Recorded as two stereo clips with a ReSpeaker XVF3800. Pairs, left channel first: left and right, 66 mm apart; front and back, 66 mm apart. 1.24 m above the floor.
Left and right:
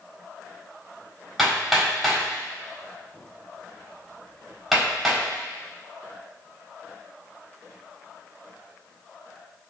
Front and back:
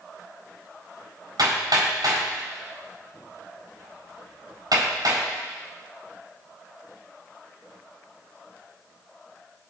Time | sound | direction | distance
1.4 | hammering | 175° right | 4.5 m